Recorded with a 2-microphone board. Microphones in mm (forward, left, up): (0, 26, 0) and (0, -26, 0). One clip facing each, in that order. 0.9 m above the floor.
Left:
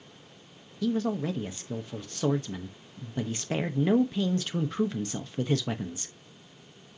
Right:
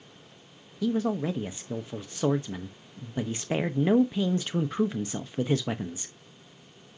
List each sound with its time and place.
0.8 s a man speaking: 15° right (ahead or behind), 0.8 m